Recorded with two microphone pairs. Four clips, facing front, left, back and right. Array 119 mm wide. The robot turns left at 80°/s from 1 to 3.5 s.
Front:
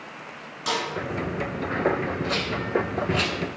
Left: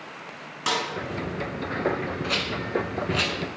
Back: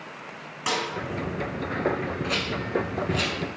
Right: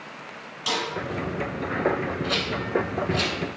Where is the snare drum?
120° left, 1.6 m.